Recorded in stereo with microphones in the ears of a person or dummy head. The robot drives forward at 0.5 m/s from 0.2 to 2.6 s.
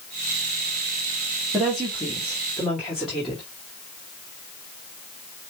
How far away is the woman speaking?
About 1.3 m.